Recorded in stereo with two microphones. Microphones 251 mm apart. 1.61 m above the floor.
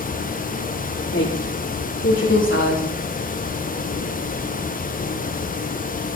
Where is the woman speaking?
50° left (ahead or behind), 3 m.